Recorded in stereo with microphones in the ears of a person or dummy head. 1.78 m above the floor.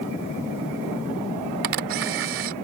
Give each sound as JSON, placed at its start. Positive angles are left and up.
{"t": 1.6, "sound": "a camera shutter", "side_deg": -65}